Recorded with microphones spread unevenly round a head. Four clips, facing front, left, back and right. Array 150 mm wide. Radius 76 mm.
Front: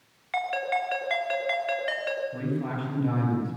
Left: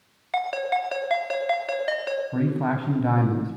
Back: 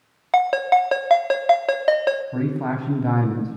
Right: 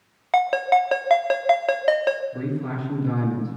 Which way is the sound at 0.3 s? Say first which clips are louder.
Right 7 dB, back 11 dB; 140° right.